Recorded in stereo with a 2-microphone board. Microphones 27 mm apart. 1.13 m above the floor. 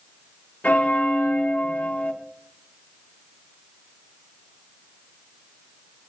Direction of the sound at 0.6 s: 70° left (ahead or behind).